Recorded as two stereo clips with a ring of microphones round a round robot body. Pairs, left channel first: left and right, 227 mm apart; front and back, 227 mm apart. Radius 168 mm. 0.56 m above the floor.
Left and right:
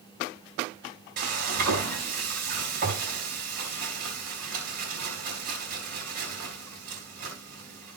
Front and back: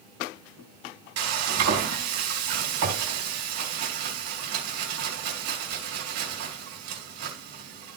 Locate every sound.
1.2 s frying: 150° right, 3.5 m